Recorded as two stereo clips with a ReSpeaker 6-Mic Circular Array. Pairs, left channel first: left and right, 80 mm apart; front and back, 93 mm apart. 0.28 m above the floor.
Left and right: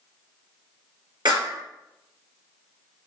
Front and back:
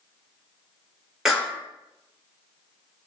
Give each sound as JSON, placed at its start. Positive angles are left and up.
{"t": 1.2, "sound": "a clap", "azimuth_deg": -95, "distance_m": 3.0}